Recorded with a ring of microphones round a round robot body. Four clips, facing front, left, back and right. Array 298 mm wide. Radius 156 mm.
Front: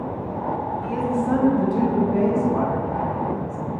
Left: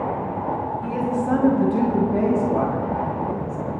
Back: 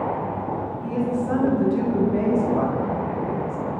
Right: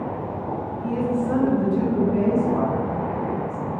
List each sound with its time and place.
0.8 s a woman speaking: 80° left, 2.5 m; by 3.7 s 140° left, 2.5 m